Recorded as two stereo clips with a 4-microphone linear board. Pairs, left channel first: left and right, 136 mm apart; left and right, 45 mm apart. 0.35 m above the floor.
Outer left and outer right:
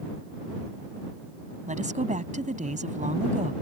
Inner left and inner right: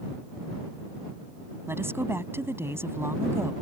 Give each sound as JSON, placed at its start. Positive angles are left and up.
{"t": 1.7, "sound": "a woman speaking", "side_deg": -65}